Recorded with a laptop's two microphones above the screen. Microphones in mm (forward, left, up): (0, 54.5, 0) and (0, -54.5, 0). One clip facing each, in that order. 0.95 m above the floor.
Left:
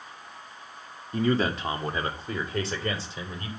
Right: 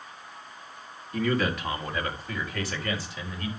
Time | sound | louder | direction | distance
1.1 | a man speaking | left 2 dB | 30° left (ahead or behind) | 2 m